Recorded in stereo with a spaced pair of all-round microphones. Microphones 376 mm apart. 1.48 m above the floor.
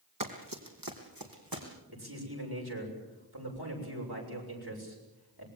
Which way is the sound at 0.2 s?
60° right (ahead or behind).